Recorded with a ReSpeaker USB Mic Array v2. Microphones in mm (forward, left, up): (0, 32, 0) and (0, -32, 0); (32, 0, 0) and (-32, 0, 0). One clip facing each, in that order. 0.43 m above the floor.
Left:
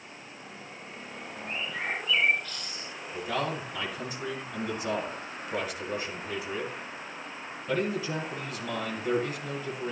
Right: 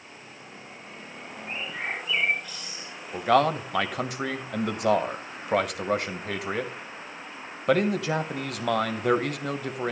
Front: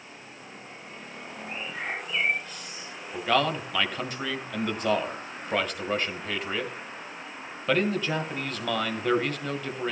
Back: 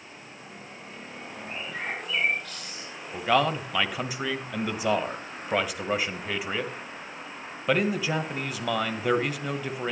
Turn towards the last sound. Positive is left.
turn(degrees=-100)